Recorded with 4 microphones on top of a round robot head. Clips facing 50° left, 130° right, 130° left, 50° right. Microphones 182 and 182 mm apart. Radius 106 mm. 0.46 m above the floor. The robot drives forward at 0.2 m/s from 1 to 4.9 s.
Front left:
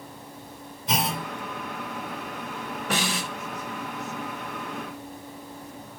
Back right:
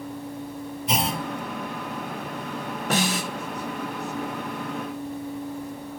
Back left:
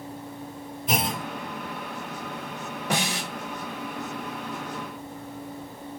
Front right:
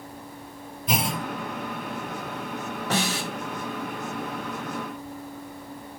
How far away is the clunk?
About 3 m.